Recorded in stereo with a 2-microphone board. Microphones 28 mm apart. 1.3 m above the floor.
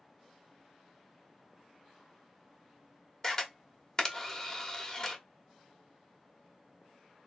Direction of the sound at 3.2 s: 15° left (ahead or behind).